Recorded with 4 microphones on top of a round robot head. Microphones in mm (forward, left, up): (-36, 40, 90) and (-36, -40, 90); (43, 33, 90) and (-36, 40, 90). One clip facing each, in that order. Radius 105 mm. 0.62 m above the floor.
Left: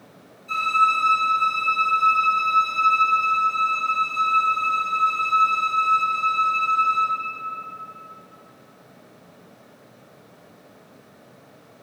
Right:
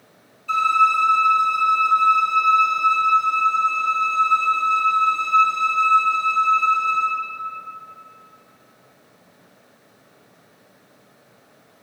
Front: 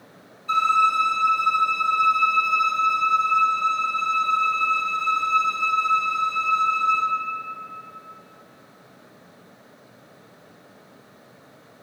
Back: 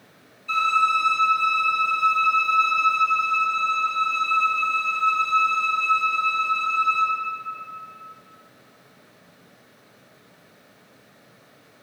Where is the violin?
55° right, 2.5 m.